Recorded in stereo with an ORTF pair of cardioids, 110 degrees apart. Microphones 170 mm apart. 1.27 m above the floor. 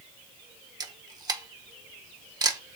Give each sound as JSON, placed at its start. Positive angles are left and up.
{"t": 0.8, "sound": "a camera shutter", "azimuth_deg": -25, "distance_m": 0.7}